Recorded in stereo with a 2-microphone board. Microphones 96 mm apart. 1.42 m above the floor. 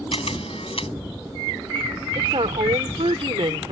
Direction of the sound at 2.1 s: 80° right.